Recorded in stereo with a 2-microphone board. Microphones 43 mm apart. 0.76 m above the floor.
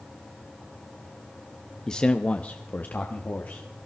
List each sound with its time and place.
1.9 s a man speaking: 15° left (ahead or behind), 0.6 m; by 3.7 s 40° left (ahead or behind), 1.4 m